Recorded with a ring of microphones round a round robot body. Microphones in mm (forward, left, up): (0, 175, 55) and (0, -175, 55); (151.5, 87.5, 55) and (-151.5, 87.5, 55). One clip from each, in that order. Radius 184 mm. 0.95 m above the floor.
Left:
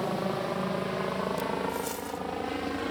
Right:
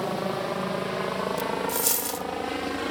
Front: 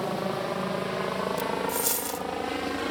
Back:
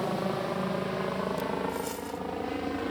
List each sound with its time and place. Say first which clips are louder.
0.0 s a helicopter: right 2 dB, front 1 dB; 55° right; by 2.9 s 35° right
1.7 s a dropped coin: right 5 dB, front 4 dB; 50° right